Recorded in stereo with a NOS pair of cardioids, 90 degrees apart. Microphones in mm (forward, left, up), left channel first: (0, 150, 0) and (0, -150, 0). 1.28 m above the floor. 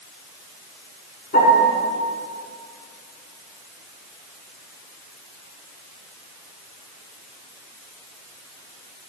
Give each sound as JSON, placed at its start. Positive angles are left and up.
{"t": 1.3, "sound": "a piano", "azimuth_deg": 30, "distance_m": 6.0}